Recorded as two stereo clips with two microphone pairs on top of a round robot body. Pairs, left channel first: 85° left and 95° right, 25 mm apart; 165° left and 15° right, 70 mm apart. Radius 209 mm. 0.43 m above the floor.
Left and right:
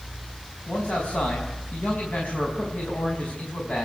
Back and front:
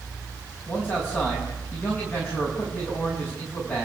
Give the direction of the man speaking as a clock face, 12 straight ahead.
9 o'clock.